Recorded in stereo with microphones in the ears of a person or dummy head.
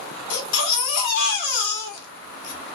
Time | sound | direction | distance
0.3 | a baby crying | 65° left (ahead or behind) | 1.7 m